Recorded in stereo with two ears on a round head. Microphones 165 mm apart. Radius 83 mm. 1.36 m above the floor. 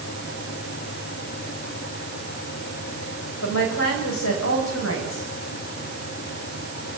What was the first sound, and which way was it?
A woman speaking, 80° left.